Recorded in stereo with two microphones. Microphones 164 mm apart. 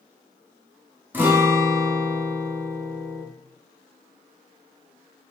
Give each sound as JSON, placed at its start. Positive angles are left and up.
{"t": 1.1, "sound": "a guitar", "side_deg": -10, "distance_m": 0.8}